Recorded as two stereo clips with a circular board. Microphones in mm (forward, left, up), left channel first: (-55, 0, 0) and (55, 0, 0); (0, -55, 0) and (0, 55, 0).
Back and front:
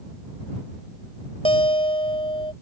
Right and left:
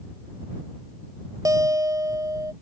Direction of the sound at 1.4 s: 145° left.